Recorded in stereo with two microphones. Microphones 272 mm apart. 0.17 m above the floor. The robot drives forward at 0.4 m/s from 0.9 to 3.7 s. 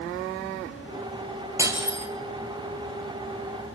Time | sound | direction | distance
1.6 | breaking glass | 10° right (ahead or behind) | 2.5 m